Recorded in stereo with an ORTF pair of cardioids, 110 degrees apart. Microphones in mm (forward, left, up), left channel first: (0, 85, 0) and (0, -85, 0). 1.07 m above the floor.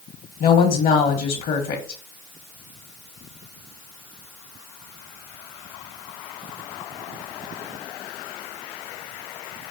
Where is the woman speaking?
60° left, 1.2 m.